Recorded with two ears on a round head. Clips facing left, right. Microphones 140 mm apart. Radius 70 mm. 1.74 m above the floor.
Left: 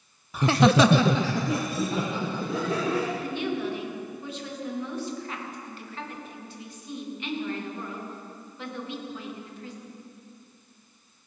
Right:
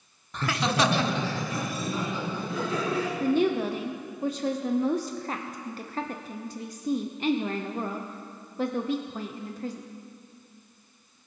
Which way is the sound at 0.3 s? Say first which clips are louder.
Left 7 dB; 5° left (ahead or behind).